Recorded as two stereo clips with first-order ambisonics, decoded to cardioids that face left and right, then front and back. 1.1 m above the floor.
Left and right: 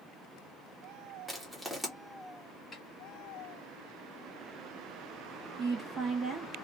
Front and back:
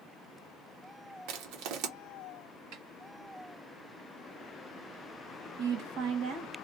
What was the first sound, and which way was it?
Crushing, 175° right.